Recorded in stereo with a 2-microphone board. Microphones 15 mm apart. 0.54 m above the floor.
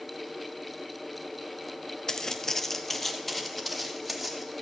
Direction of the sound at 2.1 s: 50° left (ahead or behind).